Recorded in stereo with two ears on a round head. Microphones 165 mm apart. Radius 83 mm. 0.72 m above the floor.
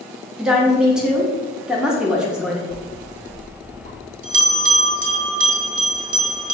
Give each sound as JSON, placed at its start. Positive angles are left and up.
{"t": 0.4, "sound": "a woman speaking", "side_deg": -5, "distance_m": 0.6}
{"t": 2.7, "sound": "a bell", "side_deg": -50, "distance_m": 0.7}